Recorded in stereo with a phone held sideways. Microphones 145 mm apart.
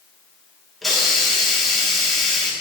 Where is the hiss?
Centre (ahead or behind), 1.1 m.